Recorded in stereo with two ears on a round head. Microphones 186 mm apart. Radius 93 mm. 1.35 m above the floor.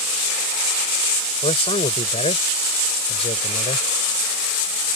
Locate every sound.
1.4 s a man speaking: 30° left (ahead or behind)